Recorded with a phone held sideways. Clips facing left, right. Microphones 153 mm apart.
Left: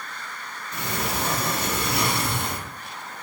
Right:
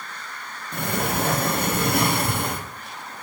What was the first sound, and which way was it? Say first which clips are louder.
A sliding door: right 4 dB; 55° right (ahead or behind).